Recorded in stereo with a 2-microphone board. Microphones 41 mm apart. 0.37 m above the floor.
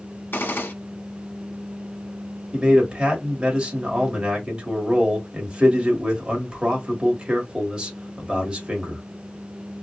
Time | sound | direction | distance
0.3 | a gunshot | 65° left (ahead or behind) | 0.6 m
2.5 | a man speaking | 25° right (ahead or behind) | 1.5 m